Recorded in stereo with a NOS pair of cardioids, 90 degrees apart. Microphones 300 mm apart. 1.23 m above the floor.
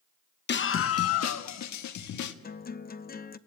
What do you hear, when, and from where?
0.5 s a scream: 35° left, 0.9 m; by 2.3 s 70° left, 2.0 m
2.4 s a guitar: 30° left, 0.8 m